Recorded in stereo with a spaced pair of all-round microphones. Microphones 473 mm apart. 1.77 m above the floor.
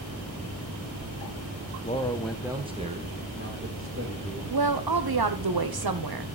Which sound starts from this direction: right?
A woman speaking, at 4.5 s.